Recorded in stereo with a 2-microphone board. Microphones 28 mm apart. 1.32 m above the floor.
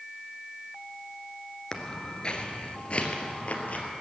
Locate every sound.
1.7 s footsteps: 20° left (ahead or behind), 1.3 m; by 3.9 s 50° left (ahead or behind), 2 m